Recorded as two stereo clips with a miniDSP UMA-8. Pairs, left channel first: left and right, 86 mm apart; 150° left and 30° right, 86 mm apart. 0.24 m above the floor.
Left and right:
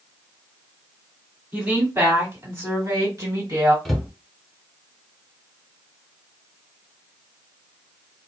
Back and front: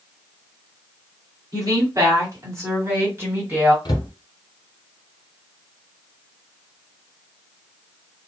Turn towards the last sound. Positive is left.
turn(degrees=180)